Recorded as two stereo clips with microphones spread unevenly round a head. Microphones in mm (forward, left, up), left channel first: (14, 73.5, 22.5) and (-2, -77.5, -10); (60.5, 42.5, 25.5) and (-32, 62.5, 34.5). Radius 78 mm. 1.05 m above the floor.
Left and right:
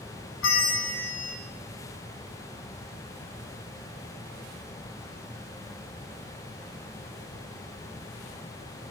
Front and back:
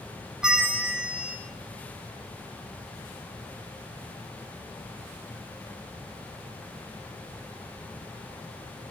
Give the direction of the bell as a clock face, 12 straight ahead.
9 o'clock.